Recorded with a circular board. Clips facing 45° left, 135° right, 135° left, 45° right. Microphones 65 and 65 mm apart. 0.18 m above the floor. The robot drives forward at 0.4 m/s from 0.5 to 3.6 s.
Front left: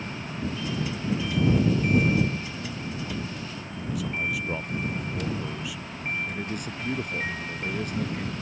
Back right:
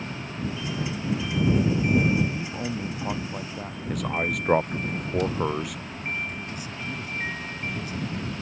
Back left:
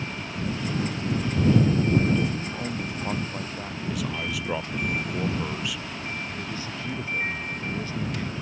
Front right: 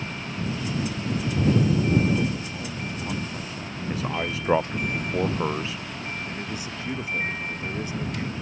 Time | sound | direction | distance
2.3 | a man speaking | 150° right | ?
3.9 | a man speaking | 100° right | ?
6.3 | a man speaking | 25° left | ?